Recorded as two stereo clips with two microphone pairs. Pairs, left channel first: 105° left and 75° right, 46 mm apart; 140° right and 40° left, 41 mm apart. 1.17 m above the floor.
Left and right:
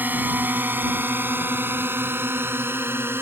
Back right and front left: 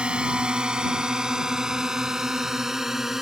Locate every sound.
0.0 s a drone: 30° right; by 3.2 s 45° right